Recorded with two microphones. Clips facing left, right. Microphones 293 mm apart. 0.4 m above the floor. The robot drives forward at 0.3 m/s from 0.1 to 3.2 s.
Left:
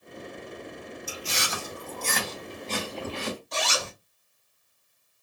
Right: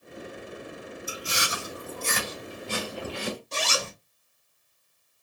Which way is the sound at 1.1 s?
15° right (ahead or behind).